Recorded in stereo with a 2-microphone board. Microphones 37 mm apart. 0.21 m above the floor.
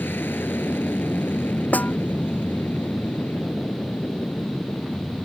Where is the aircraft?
65° left (ahead or behind); by 5.2 s 70° left (ahead or behind).